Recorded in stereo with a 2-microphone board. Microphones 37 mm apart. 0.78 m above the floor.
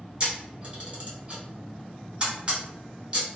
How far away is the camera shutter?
About 1.9 m.